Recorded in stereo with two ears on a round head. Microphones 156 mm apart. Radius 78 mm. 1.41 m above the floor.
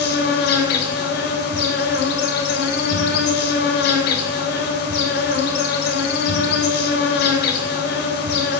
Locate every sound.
0.0 s an insect: 65° left (ahead or behind), 3 m